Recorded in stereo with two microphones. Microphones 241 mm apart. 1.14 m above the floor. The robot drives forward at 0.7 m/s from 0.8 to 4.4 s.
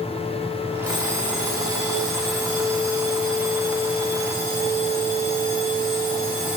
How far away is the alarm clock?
About 8 m.